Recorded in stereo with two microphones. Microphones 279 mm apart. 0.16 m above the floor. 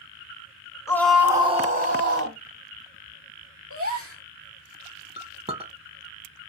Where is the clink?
20° right (ahead or behind), 0.8 m.